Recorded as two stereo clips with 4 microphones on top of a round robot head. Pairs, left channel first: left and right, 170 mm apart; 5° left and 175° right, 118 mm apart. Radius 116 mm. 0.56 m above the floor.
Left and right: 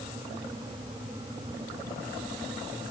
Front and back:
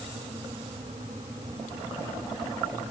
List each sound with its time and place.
Only background noise.